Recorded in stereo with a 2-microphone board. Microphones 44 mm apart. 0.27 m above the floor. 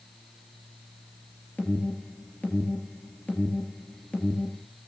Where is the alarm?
40° left (ahead or behind), 3 m.